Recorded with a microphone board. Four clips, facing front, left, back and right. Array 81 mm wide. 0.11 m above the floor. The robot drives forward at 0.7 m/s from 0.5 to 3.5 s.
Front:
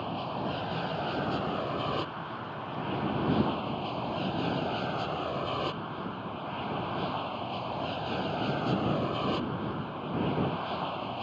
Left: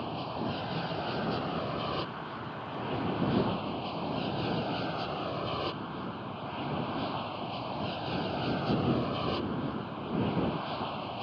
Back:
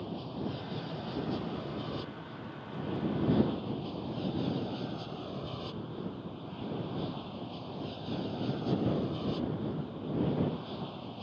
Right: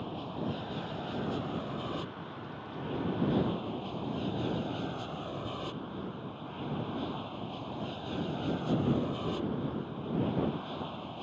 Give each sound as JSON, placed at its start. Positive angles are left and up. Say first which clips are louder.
{"t": 0.0, "sound": "an aircraft", "louder": "left 2 dB, front 5 dB", "azimuth_deg": 25}